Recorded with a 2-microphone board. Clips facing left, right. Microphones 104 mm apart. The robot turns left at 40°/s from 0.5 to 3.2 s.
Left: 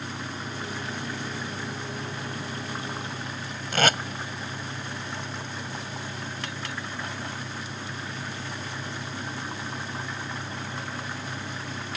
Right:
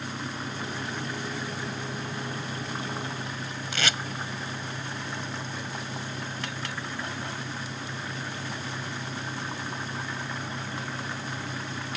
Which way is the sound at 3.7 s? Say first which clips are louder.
Left 8 dB; 55° left (ahead or behind).